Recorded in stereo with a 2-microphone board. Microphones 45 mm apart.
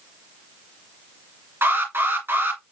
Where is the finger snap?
I don't hear a finger snap.